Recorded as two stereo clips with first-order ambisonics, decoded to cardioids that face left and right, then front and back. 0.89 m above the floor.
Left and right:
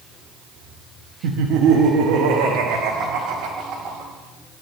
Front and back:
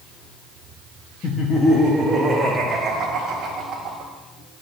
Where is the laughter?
60° right, 0.8 m; by 4.1 s 125° right, 2 m.